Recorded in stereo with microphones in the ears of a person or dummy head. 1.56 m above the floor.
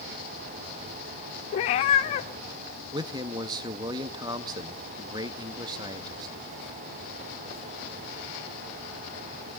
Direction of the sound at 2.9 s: 30° right (ahead or behind).